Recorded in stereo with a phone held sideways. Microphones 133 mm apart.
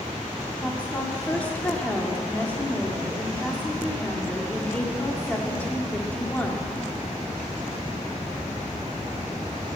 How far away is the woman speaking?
About 2 m.